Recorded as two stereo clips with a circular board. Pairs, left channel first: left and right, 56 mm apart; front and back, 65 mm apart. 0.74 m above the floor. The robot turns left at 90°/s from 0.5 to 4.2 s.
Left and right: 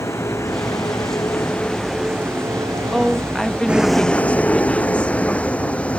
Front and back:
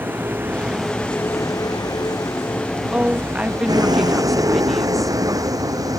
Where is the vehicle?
120° left; by 6.0 s 155° left.